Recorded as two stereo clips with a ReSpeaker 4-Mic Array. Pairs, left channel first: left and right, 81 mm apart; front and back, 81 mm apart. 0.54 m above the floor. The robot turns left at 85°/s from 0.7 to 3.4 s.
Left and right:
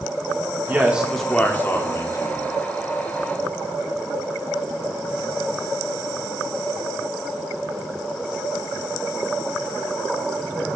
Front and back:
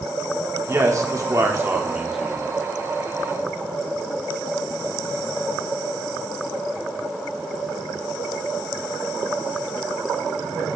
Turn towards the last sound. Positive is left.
turn(degrees=-15)